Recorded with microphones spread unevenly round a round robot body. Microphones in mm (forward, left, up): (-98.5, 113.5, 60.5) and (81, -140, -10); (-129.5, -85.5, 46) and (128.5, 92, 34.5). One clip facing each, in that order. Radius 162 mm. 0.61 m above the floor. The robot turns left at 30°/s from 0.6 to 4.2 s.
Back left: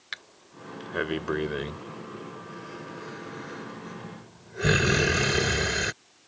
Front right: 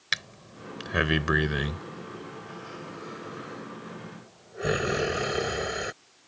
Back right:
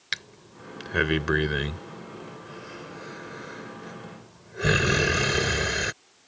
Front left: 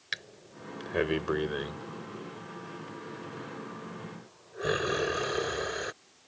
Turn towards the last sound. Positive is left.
turn(degrees=175)